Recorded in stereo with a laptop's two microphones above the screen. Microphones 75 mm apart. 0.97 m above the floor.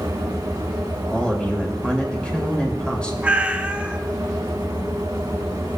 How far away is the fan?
About 1.4 m.